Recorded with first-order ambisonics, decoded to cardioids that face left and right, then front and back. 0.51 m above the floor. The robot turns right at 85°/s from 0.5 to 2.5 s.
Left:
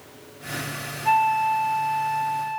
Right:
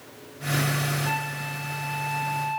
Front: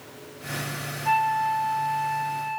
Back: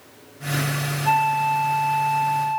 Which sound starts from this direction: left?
A flute, at 1.1 s.